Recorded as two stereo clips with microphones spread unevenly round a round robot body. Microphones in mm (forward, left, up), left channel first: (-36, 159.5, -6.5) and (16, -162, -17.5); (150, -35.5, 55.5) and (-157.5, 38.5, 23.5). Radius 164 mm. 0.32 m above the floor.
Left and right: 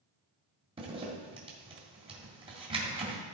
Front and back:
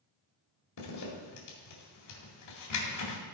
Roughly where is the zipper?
Ahead.